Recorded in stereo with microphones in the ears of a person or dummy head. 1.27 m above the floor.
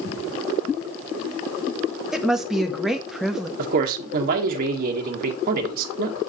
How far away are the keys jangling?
No keys jangling in this recording.